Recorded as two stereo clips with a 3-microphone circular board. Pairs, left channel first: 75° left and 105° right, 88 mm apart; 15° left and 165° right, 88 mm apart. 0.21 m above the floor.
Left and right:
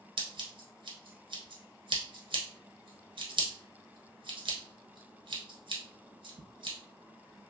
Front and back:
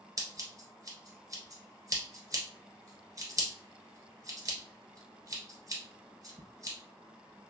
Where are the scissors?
115° right, 1.3 m.